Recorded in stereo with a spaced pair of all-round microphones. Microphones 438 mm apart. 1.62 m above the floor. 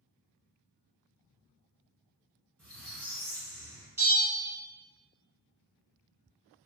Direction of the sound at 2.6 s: 35° right (ahead or behind).